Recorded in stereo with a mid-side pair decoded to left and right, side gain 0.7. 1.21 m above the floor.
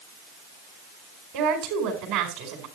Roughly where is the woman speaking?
Right.